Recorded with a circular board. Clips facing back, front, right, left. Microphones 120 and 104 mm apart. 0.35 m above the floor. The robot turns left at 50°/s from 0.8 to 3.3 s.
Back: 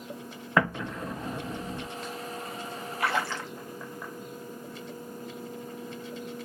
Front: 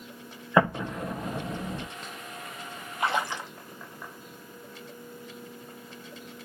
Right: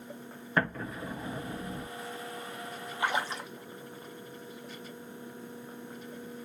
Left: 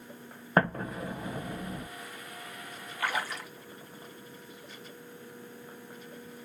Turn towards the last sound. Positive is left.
turn(degrees=-60)